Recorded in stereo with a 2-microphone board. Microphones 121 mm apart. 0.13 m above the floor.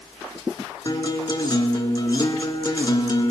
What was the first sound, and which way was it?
A guitar, 35° left (ahead or behind).